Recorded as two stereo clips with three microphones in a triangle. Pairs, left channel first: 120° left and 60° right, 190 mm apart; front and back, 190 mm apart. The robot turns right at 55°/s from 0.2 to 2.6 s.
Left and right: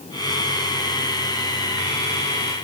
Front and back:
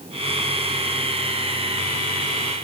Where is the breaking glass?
I don't hear breaking glass.